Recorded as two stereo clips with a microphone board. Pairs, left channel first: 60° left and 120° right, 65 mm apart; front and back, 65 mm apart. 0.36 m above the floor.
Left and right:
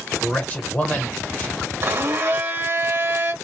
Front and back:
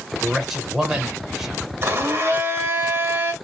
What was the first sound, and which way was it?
A man speaking, 100° left.